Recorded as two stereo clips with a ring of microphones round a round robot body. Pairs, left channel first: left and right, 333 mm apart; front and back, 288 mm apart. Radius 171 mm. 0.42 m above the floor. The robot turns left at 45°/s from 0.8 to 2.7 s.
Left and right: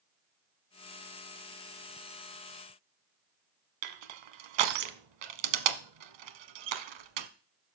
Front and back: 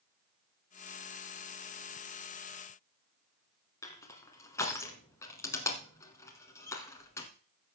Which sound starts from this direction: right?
Crushing, at 3.8 s.